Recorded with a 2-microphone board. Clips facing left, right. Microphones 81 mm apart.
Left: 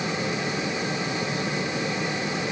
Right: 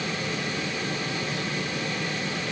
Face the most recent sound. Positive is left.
No sound to turn to.